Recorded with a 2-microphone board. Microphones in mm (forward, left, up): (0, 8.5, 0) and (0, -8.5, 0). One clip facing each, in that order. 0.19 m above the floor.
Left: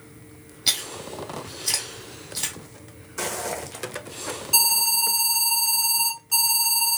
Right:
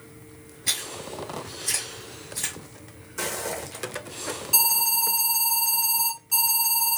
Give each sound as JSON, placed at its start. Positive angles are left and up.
{"t": 0.7, "sound": "chewing", "side_deg": 80, "distance_m": 1.7}
{"t": 3.2, "sound": "footsteps", "side_deg": 15, "distance_m": 0.7}
{"t": 4.5, "sound": "an alarm", "side_deg": 5, "distance_m": 2.0}